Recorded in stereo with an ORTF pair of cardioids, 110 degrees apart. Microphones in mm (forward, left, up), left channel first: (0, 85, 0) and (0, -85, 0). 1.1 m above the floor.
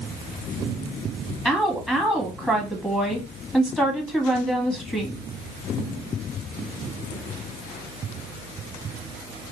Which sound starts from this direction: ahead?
A woman speaking, at 1.4 s.